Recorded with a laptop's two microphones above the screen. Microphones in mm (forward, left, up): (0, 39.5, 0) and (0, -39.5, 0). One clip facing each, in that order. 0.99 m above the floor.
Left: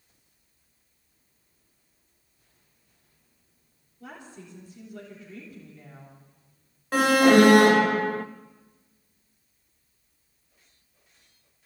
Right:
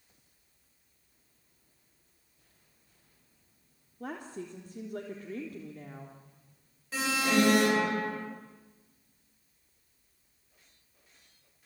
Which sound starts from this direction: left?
An alarm, at 6.9 s.